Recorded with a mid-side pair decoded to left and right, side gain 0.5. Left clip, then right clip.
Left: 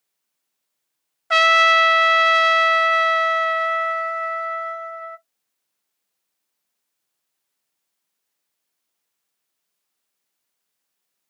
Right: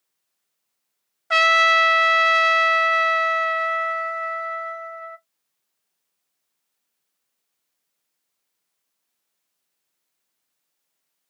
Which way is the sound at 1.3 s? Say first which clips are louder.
Left 2 dB; 15° left.